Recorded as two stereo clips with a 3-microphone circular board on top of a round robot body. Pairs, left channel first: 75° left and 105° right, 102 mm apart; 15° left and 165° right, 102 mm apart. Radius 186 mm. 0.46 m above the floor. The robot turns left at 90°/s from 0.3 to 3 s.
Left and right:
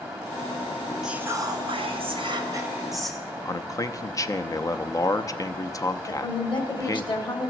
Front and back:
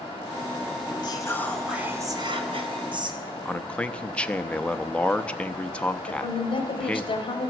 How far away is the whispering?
About 1.6 m.